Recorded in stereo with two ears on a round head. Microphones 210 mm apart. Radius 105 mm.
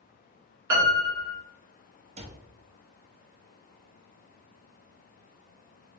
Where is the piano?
75° right (ahead or behind), 1.8 m.